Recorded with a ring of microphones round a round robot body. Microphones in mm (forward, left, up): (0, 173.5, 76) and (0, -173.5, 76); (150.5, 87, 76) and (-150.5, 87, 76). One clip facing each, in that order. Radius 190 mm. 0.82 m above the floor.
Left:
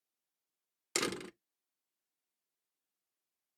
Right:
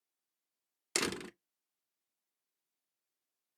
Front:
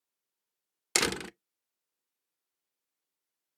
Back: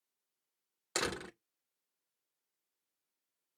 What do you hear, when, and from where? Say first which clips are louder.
0.9 s a door slam: even, front 5 dB; 5° right, 0.5 m